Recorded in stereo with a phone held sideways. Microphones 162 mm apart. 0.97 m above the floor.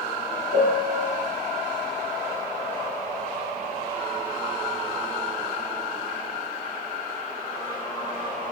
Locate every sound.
0.5 s a piano: 50° right (ahead or behind), 1.2 m